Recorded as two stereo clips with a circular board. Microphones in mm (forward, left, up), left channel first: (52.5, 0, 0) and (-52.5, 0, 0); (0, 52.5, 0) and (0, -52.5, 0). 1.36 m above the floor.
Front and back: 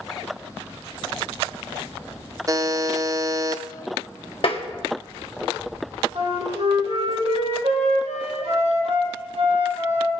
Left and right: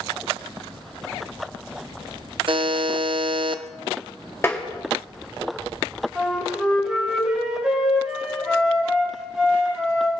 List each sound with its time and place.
2.5 s a buzzer: 125° right, 0.5 m
4.4 s tapping: 25° left, 1.5 m
6.2 s a flute: 170° right, 3.5 m